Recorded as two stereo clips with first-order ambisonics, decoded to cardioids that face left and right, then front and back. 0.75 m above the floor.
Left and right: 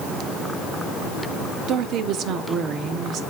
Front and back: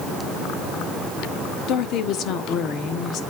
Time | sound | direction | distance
1.7 | a woman speaking | 45° right | 1.4 m